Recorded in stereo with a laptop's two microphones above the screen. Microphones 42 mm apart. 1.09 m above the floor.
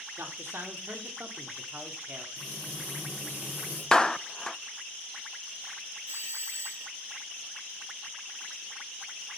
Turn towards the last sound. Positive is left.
turn(degrees=-75)  # may be behind; listen again after turning